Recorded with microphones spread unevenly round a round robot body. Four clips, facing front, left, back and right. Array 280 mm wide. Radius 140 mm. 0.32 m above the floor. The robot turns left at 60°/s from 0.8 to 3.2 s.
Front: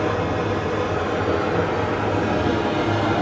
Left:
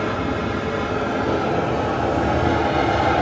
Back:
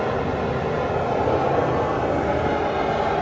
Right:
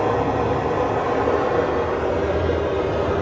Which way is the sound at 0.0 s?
125° right.